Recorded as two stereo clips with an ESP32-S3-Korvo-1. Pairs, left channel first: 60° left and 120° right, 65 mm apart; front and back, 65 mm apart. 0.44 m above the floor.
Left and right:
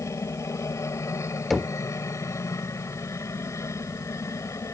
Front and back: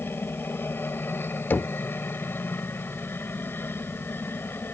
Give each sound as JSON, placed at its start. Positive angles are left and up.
{"t": 0.0, "sound": "a helicopter", "azimuth_deg": 45}
{"t": 1.5, "sound": "knocking", "azimuth_deg": -30}